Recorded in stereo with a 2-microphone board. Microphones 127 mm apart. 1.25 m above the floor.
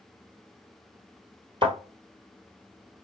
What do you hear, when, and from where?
1.6 s a thud: 40° right (ahead or behind), 1.6 m